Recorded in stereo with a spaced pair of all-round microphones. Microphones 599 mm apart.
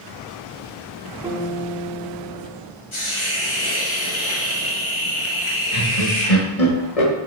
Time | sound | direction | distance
1.2 | a guitar | 5° right (ahead or behind) | 1.7 m
2.9 | a hiss | 50° left (ahead or behind) | 1.5 m
5.7 | laughter | 70° left (ahead or behind) | 1.7 m